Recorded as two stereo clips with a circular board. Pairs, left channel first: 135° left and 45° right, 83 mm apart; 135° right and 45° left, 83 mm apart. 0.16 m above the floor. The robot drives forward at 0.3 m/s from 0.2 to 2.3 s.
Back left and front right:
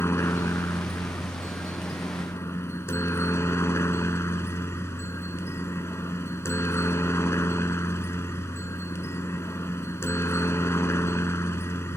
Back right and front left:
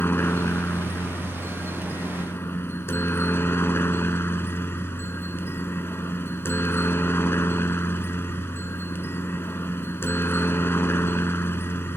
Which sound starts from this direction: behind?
A helicopter, at 0.0 s.